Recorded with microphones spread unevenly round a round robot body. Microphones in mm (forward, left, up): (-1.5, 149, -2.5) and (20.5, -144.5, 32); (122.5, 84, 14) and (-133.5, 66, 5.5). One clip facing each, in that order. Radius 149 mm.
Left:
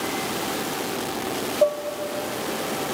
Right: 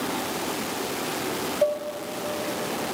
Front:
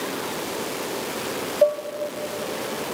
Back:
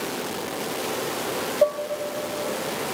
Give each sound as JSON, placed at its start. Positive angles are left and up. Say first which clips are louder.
{"t": 1.6, "sound": "dishes clattering", "louder": "left 3 dB, front 2 dB", "azimuth_deg": 120, "distance_m": 0.5}